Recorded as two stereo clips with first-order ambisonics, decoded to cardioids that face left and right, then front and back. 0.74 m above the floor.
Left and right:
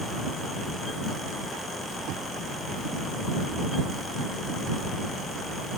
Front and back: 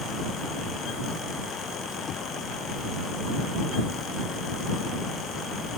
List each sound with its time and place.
2.1 s knocking: 60° right